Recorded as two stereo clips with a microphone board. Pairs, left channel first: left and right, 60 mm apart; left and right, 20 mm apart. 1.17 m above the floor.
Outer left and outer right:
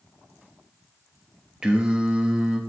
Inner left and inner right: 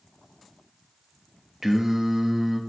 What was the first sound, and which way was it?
Singing, 15° right (ahead or behind).